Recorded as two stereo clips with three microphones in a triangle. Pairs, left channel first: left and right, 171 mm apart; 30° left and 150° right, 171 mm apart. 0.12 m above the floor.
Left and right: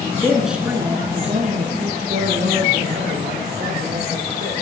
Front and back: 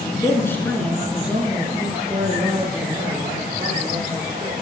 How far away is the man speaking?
About 1.4 m.